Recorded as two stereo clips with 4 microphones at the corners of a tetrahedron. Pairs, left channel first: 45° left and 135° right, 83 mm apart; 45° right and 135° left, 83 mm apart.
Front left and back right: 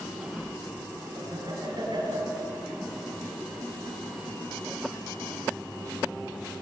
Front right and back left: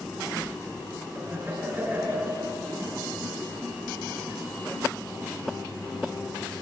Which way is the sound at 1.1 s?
160° right.